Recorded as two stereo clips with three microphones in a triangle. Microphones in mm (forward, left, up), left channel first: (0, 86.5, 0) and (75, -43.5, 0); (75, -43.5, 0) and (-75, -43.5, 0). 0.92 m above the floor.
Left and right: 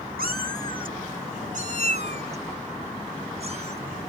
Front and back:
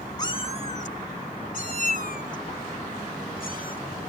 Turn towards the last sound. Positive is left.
turn(degrees=-15)